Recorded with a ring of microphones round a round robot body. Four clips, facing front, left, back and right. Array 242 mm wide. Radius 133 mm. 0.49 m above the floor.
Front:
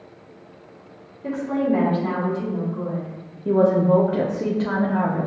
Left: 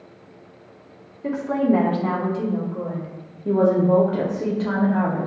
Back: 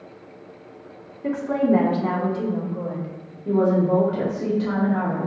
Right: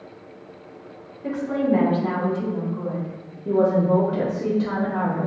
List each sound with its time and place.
1.2 s a woman speaking: 135° left, 1.0 m; by 3.1 s 125° left, 1.9 m
3.5 s a woman speaking: 30° left, 0.7 m